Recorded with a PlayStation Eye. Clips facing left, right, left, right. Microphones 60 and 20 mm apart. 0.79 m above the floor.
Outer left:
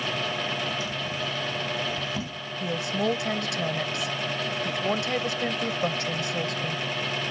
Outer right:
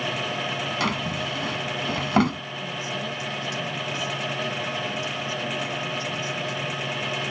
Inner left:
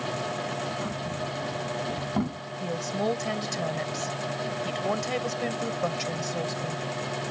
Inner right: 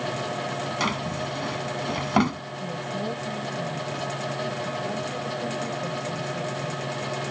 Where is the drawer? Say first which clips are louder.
Outer right 4 dB, inner right 5 dB; 75° right (ahead or behind).